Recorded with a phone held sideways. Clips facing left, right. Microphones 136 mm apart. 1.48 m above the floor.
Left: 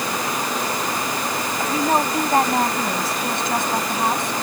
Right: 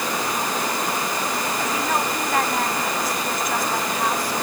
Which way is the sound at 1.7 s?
30° left (ahead or behind).